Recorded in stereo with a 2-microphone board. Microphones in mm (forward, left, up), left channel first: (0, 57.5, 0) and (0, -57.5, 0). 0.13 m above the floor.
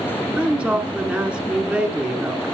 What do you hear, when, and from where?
0.4 s a woman speaking: 10° right (ahead or behind), 1.7 m